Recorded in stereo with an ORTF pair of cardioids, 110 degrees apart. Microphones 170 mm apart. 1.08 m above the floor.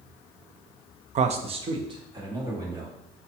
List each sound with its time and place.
1.1 s a man speaking: 50° right, 0.6 m; by 3.3 s 20° right, 2.5 m